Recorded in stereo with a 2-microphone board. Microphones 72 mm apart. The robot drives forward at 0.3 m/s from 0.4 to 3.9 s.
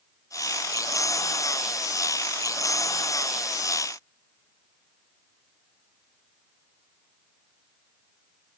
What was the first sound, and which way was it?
Only background noise.